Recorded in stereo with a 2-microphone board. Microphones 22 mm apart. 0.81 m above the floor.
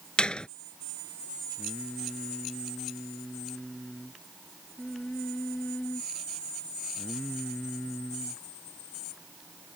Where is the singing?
40° left (ahead or behind).